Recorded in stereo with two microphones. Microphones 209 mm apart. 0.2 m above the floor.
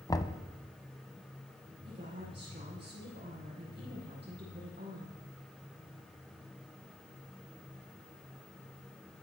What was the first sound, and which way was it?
Knocking, 20° left (ahead or behind).